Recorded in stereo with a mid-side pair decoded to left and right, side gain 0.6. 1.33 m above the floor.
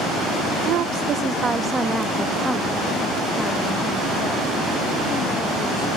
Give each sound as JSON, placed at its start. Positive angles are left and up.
{"t": 0.7, "sound": "a woman speaking", "azimuth_deg": -70}